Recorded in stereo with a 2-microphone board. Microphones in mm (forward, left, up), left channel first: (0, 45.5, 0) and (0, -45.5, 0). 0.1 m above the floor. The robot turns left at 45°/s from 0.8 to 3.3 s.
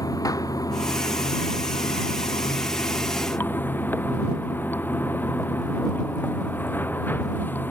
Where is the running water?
135° left; by 7.7 s 25° left.